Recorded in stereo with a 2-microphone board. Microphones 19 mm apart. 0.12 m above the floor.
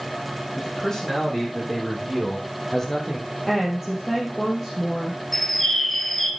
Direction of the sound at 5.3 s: 10° left (ahead or behind).